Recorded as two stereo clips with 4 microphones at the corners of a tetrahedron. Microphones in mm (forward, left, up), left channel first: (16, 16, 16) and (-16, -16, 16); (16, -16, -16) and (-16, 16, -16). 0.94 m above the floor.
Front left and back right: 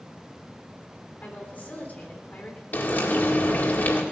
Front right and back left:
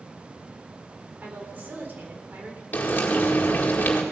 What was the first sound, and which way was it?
A woman speaking, 90° left.